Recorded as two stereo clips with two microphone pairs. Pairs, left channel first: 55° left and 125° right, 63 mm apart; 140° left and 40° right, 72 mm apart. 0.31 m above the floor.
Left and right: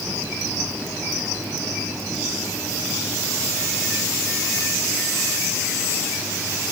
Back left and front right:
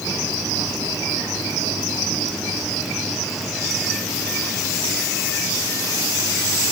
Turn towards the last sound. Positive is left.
No sound to turn to.